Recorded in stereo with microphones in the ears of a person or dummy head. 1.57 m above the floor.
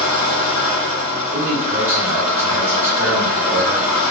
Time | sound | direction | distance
0.0 | an engine running | centre (ahead or behind) | 1.2 m
1.3 | a man speaking | 10° right (ahead or behind) | 1.4 m